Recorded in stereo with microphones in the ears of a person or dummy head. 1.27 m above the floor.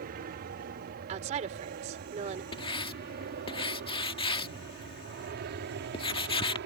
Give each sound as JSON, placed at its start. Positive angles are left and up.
{"t": 0.0, "sound": "an aircraft", "side_deg": -45}
{"t": 1.1, "sound": "a woman speaking", "side_deg": -35}
{"t": 2.5, "sound": "writing", "side_deg": 25}